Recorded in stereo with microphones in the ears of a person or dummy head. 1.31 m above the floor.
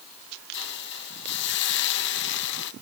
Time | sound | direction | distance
0.5 | a hiss | 60° left (ahead or behind) | 1.7 m